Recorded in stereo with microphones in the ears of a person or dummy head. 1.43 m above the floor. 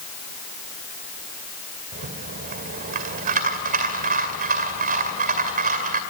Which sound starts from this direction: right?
A rattle, at 1.9 s.